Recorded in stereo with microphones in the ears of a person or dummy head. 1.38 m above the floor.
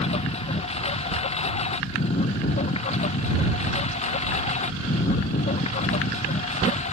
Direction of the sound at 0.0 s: 30° left (ahead or behind).